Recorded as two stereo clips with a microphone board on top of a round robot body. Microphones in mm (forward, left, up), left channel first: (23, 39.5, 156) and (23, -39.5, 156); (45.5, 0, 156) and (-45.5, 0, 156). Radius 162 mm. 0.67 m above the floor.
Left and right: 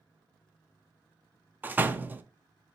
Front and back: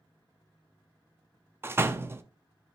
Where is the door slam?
135° right, 0.7 m.